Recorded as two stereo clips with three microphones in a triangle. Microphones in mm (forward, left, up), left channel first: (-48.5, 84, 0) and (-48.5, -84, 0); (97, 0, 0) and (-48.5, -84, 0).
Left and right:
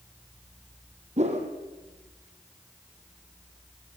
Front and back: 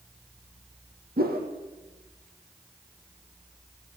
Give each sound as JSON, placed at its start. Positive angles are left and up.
{"t": 1.2, "sound": "a whoosh", "azimuth_deg": -135, "distance_m": 4.0}